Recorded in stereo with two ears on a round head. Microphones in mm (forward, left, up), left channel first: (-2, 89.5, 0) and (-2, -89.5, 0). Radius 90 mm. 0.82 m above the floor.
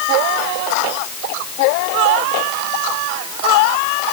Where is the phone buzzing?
I don't hear a phone buzzing.